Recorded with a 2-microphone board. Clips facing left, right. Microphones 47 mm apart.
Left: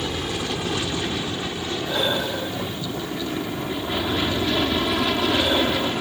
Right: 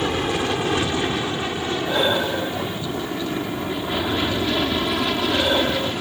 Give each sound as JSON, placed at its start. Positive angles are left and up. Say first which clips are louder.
{"t": 0.0, "sound": "an aircraft", "louder": "right 5 dB", "side_deg": -35}
{"t": 1.9, "sound": "breathing", "louder": "right 3 dB", "side_deg": -20}